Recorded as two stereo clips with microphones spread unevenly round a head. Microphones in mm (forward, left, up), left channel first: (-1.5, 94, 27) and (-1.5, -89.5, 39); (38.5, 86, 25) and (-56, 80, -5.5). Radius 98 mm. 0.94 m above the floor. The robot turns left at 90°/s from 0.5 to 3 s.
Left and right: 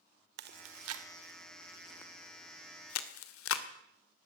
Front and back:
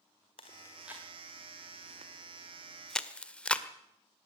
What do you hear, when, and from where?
0.4 s chewing: 55° right, 1.7 m; by 3.6 s 80° left, 1.7 m